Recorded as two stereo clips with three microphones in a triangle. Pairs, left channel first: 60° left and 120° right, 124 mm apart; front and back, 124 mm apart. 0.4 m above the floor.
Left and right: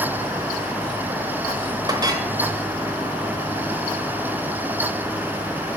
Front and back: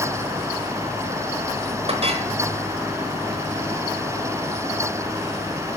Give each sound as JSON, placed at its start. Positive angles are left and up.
{"t": 1.9, "sound": "a clink", "azimuth_deg": -170, "distance_m": 0.9}